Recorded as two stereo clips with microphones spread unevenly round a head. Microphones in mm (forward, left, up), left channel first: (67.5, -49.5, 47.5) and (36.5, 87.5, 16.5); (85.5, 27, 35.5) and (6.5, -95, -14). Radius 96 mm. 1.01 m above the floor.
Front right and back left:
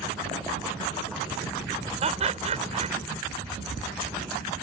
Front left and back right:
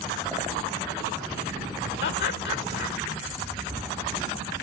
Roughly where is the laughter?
Ahead left.